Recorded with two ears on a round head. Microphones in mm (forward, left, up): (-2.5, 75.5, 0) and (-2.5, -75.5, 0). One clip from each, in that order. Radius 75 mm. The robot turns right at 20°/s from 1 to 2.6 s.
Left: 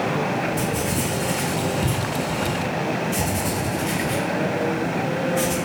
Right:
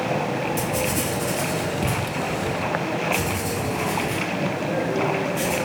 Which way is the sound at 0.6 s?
35° right (ahead or behind).